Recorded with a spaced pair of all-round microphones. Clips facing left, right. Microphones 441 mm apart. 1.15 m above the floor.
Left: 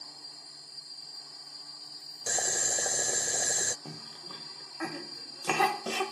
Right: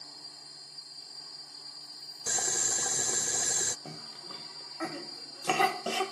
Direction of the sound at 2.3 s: 20° right (ahead or behind).